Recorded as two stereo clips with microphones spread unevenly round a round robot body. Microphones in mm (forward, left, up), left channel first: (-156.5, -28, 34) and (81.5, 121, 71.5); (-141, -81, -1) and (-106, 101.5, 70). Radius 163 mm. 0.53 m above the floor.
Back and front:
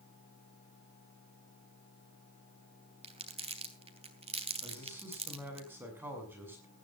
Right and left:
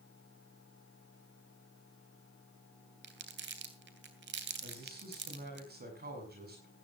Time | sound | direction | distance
3.0 | crumpling | 100° left | 3 m
4.6 | a man speaking | 115° left | 6.5 m